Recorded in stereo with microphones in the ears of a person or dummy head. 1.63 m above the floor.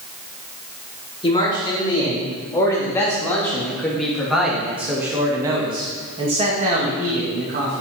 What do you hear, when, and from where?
1.2 s a man speaking: 25° left (ahead or behind), 3 m; by 7.8 s 55° right (ahead or behind), 1.9 m